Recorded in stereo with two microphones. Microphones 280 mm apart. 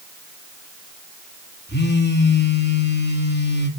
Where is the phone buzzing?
35° left (ahead or behind), 2 m.